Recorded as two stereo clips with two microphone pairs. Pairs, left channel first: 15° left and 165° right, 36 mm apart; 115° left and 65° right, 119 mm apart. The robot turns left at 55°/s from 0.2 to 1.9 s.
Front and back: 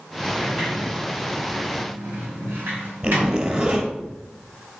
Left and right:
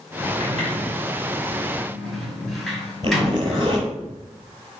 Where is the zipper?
115° right, 4 m.